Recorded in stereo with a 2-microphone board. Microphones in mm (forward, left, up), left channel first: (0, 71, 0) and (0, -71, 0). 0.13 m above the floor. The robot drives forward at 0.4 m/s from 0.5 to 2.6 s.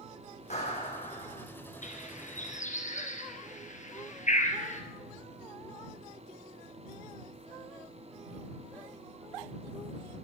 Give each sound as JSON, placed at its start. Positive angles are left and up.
{"t": 0.5, "sound": "a clap", "side_deg": 50, "distance_m": 5.0}
{"t": 1.8, "sound": "a bird", "side_deg": 60, "distance_m": 2.5}